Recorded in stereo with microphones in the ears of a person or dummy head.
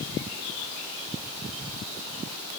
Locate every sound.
Only background noise.